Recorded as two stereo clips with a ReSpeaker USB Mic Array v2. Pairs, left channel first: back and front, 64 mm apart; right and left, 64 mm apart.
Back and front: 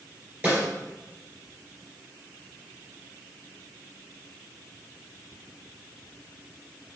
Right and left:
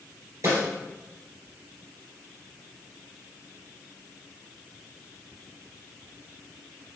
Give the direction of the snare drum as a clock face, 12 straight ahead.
10 o'clock.